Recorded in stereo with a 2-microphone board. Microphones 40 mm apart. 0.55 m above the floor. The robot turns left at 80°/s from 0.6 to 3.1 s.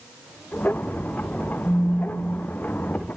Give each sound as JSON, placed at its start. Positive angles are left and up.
{"t": 1.6, "sound": "a phone buzzing", "azimuth_deg": 90, "distance_m": 3.0}